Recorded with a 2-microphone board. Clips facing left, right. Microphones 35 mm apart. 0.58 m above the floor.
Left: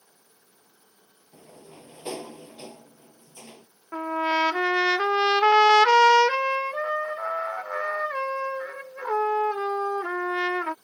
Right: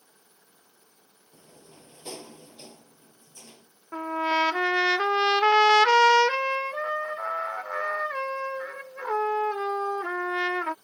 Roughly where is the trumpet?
Centre.